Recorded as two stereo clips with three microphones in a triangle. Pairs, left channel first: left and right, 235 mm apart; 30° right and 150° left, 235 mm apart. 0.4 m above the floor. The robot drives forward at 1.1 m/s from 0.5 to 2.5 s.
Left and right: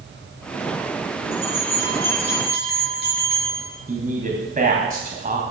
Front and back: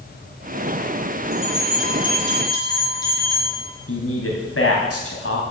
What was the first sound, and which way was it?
A bell, 35° left.